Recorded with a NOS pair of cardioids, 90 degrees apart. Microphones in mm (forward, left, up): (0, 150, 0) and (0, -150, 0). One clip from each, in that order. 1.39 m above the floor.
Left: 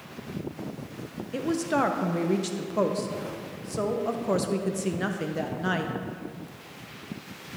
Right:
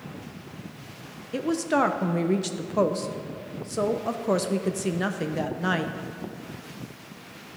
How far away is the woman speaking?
About 0.6 m.